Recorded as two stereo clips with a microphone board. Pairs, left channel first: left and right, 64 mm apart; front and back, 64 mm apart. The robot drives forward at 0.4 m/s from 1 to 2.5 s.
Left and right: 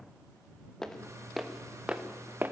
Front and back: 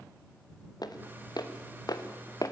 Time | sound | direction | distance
0.8 | footsteps | 10° left | 2.5 m